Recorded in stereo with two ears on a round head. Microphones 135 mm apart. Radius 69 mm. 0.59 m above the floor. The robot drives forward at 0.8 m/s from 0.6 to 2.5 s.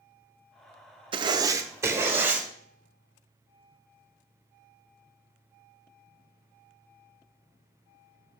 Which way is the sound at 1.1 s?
35° right (ahead or behind).